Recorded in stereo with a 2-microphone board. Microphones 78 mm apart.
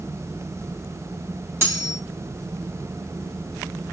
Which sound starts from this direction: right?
Cutlery clinking, at 1.6 s.